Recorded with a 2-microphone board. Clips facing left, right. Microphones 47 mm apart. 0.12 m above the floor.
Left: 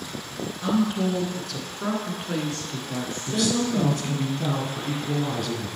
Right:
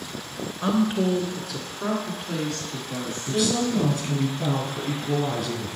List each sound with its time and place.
0.6 s a woman speaking: 30° right (ahead or behind), 1.2 m; by 4.3 s 55° left (ahead or behind), 1.7 m
3.3 s a woman speaking: centre (ahead or behind), 1.3 m